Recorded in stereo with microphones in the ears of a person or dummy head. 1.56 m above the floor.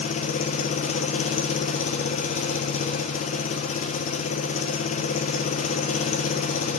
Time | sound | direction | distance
0.0 | an engine running | 40° left (ahead or behind) | 1.0 m